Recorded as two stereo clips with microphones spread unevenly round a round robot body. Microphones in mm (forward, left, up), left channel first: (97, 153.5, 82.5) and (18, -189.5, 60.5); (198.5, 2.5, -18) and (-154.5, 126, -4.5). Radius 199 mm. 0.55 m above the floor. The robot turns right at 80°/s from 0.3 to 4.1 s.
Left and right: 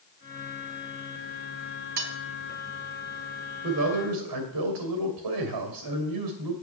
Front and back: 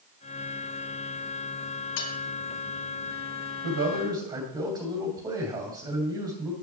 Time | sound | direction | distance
2.0 | cutlery clinking | 70° right | 1.3 m
3.6 | a man speaking | 155° right | 2.5 m